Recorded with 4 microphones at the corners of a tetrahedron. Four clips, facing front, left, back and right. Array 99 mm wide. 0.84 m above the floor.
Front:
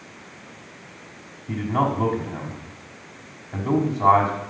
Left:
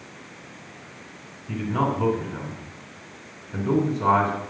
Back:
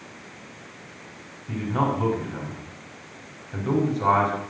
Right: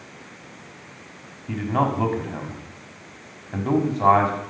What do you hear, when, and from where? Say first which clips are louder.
1.5 s a man speaking: right 2 dB, front 2 dB; 70° right, 6 m